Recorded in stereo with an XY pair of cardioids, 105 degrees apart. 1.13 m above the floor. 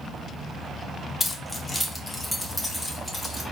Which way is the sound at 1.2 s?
25° left.